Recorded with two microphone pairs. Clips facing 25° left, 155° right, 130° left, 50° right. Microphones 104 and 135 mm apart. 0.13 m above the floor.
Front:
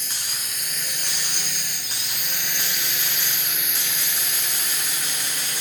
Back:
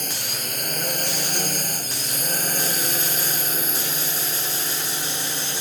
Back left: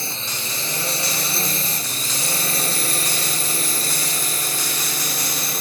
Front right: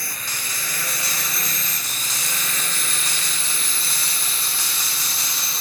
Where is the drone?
170° right; by 5.6 s 150° left.